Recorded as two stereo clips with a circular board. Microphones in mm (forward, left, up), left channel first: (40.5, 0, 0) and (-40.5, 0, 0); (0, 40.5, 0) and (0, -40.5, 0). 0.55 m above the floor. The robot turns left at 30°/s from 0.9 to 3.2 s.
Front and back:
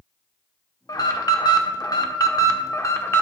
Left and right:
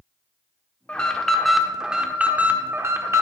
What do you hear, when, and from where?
0.9 s an alarm: 20° left, 0.9 m; by 3.2 s 50° right, 0.9 m